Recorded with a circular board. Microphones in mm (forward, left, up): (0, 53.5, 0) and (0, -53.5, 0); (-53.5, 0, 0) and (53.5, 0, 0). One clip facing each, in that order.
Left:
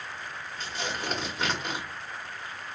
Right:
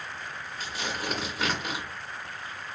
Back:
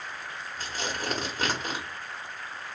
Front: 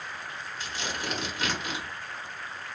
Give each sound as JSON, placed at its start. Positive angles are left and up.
{"t": 0.6, "sound": "tearing paper", "azimuth_deg": -175, "distance_m": 1.5}